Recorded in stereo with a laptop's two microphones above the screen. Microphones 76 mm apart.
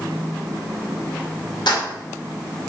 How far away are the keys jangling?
About 1.0 m.